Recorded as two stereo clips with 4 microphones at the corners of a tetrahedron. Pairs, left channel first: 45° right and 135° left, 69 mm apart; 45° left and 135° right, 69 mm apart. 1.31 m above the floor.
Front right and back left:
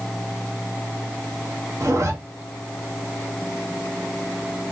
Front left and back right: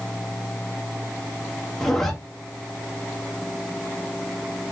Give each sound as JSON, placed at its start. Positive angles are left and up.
{"t": 1.8, "sound": "a zipper", "azimuth_deg": 130, "distance_m": 0.7}